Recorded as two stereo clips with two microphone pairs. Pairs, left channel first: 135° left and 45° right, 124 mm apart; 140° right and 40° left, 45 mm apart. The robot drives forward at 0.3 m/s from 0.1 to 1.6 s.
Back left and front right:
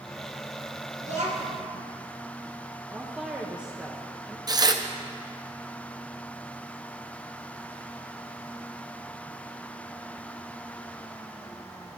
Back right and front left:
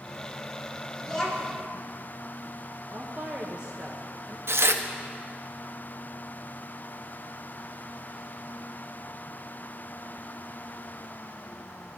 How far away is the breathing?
No breathing in this recording.